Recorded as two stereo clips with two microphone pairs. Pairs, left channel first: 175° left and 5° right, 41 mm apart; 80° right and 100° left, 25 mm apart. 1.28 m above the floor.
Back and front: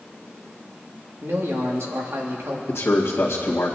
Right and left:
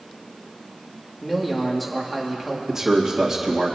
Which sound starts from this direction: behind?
A man speaking, at 2.7 s.